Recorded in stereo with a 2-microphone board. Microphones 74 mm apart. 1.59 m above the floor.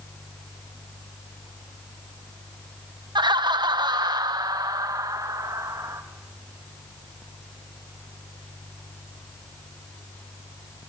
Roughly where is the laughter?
Right.